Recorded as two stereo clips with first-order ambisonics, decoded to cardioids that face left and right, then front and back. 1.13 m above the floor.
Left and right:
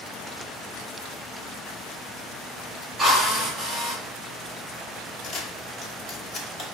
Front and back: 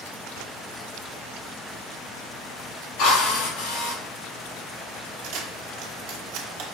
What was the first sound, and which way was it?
A drill, 15° right.